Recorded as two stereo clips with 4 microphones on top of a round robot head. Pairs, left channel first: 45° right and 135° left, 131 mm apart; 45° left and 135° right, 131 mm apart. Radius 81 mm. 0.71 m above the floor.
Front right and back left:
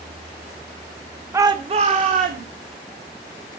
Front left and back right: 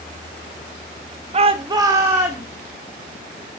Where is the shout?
155° right, 0.8 m; by 2.5 s 145° left, 1.8 m.